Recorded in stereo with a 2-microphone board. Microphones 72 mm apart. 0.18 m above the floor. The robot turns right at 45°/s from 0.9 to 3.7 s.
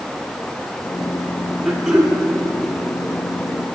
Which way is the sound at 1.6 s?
5° left (ahead or behind).